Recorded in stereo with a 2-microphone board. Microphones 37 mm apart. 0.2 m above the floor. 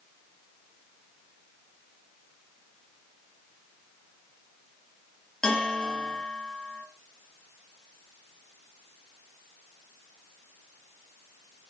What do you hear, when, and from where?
5.4 s a bell: 15° left (ahead or behind), 3 m